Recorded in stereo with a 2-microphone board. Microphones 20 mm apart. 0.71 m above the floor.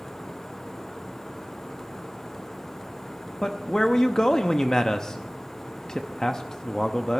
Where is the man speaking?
30° left (ahead or behind), 0.7 m.